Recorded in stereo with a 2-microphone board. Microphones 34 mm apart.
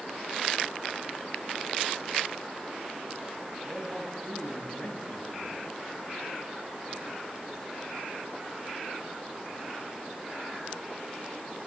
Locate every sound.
3.7 s a man speaking: 35° left (ahead or behind), 2 m